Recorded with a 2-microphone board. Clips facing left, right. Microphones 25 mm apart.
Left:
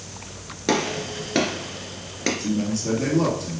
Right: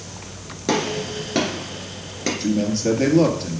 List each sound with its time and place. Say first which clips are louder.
0.7 s a gunshot: right 1 dB; 10° left (ahead or behind), 2.0 m
2.4 s a man speaking: right 4 dB; 40° right (ahead or behind), 1.9 m